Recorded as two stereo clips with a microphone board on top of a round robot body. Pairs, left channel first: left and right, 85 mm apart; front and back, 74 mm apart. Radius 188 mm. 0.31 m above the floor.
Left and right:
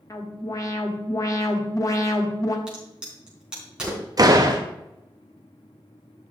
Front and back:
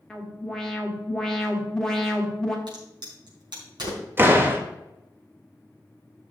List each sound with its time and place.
0.1 s an alarm: 80° left, 1.8 m
2.7 s a crack: 170° right, 4.5 m
4.2 s a door slam: 125° right, 1.7 m